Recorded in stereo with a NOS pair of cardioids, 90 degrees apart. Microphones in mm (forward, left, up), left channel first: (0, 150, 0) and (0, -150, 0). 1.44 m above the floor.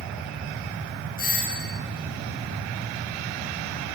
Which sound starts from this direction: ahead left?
A doorbell, at 1.2 s.